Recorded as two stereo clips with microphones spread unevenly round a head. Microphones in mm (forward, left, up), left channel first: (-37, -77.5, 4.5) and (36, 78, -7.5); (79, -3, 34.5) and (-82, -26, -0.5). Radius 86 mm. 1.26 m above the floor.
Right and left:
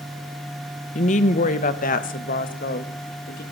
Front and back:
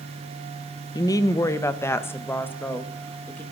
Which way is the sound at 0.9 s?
60° right.